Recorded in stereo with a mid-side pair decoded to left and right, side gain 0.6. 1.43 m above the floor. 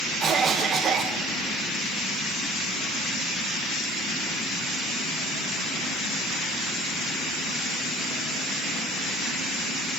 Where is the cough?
45° right, 1.4 m.